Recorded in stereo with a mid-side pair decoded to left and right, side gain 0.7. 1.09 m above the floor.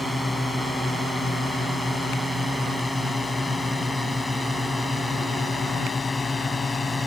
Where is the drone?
10° left; by 7.1 s 20° left.